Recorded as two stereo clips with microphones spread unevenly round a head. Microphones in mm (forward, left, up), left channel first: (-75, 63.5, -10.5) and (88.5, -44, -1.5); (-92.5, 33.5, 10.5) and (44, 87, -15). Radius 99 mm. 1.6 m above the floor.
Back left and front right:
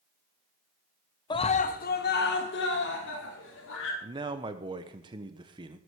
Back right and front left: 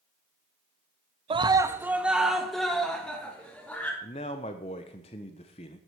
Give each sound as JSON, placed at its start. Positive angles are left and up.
{"t": 1.3, "sound": "a scream", "azimuth_deg": 75, "distance_m": 0.8}
{"t": 4.0, "sound": "a man speaking", "azimuth_deg": -100, "distance_m": 0.9}